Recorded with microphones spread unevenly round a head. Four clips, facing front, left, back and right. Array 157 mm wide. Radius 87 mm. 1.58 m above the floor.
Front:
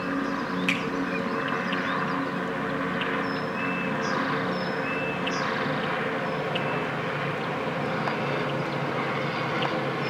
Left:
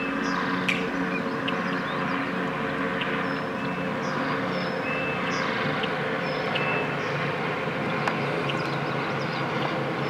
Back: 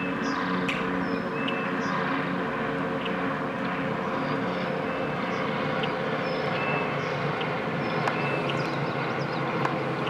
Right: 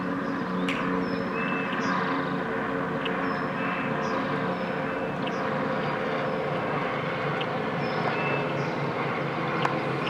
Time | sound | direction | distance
0.7 | a finger snap | 40° right | 2.5 m